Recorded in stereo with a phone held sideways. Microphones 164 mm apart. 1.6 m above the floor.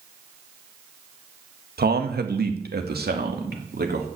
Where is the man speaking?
70° right (ahead or behind), 1.6 m; by 4.1 s 75° right (ahead or behind), 3 m.